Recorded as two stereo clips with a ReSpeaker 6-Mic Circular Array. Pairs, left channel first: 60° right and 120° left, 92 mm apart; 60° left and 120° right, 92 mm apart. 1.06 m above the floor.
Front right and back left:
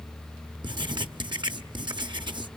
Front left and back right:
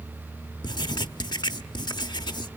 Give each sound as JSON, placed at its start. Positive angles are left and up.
{"t": 0.6, "sound": "writing", "azimuth_deg": 95, "distance_m": 0.9}